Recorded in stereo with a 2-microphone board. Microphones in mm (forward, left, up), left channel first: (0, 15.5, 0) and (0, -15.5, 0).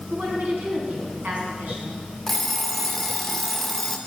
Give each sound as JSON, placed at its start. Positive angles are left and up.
{"t": 0.1, "sound": "a woman speaking", "side_deg": -65, "distance_m": 4.0}
{"t": 2.3, "sound": "an alarm clock", "side_deg": 10, "distance_m": 0.8}